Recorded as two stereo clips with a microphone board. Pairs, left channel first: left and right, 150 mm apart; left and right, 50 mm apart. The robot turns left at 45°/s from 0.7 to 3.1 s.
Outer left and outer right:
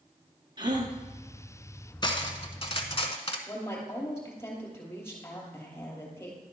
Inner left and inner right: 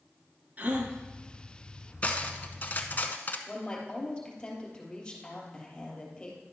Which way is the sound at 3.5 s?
15° left (ahead or behind).